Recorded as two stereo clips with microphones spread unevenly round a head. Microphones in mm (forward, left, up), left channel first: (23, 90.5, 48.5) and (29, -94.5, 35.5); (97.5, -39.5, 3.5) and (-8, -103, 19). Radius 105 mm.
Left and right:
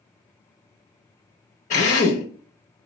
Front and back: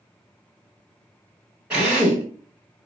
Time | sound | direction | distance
1.7 | a drill | 135° left | 0.8 m